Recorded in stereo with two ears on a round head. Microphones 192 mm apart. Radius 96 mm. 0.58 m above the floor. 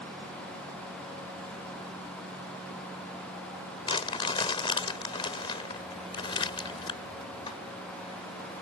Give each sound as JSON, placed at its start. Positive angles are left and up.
{"t": 3.9, "sound": "crumpling", "side_deg": 25}